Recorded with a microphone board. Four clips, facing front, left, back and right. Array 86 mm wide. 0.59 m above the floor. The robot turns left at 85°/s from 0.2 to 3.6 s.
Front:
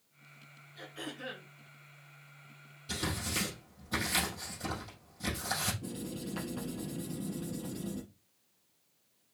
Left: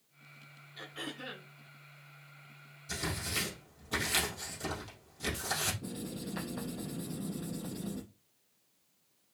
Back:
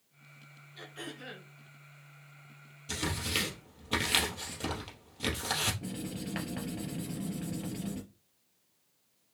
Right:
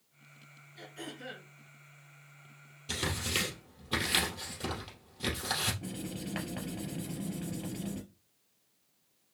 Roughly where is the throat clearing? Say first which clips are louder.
Left 1 dB, front 1 dB; left.